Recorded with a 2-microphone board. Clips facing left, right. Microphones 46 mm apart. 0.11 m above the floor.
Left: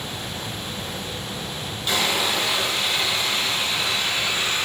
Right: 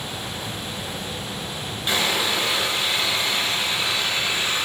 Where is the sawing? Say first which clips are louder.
Even; 20° right (ahead or behind), 1.0 m.